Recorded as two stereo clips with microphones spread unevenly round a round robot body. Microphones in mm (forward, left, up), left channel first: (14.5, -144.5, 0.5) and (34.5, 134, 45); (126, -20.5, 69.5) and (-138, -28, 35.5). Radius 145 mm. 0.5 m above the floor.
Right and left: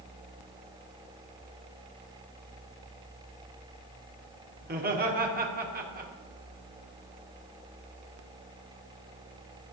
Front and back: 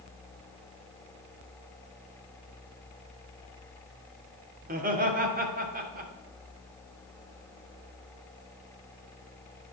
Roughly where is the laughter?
Behind left.